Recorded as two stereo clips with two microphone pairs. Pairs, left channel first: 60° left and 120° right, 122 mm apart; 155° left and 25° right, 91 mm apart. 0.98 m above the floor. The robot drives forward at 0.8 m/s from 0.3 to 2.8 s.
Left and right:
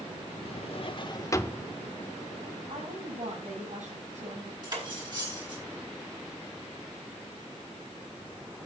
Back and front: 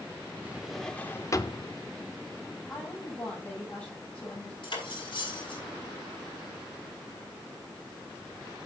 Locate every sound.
0.5 s a drawer: 45° left, 0.8 m; by 1.7 s 140° left, 0.9 m
2.7 s a woman speaking: 130° right, 7 m
4.6 s cutlery clinking: 170° right, 4.5 m